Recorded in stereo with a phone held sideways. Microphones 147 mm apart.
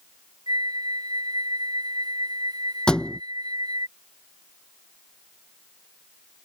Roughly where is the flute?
Right.